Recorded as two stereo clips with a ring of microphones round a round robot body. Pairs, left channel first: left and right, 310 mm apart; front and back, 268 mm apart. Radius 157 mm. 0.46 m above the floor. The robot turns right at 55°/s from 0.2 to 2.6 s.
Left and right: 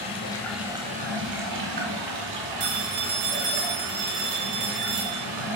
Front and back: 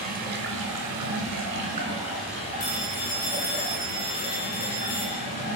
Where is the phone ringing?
60° right, 2.0 m.